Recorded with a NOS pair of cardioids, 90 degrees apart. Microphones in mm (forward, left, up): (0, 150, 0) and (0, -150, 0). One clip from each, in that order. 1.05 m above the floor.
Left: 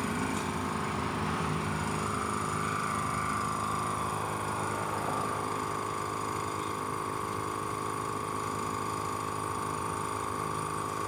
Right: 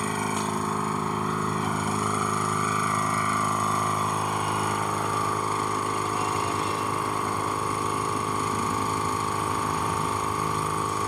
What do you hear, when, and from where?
0.0 s a machine running: 50° right